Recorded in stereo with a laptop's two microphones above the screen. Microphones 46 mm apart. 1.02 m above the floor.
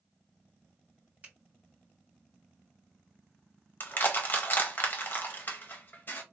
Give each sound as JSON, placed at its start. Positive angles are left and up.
{"t": 1.2, "sound": "a finger snap", "side_deg": -30, "distance_m": 2.0}
{"t": 3.8, "sound": "crushing", "side_deg": 40, "distance_m": 0.6}